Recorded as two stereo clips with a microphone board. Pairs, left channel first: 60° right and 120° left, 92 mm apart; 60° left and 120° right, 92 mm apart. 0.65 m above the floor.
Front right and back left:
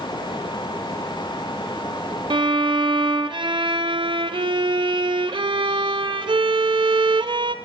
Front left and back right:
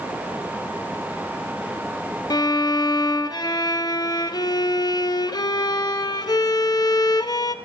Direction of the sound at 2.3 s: 100° left.